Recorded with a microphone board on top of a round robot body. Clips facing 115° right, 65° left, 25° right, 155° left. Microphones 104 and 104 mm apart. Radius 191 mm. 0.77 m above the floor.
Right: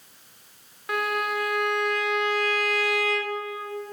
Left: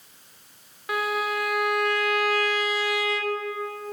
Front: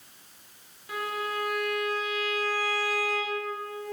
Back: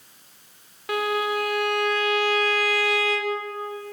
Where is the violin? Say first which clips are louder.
Even, back 8 dB; 155° left, 0.6 m.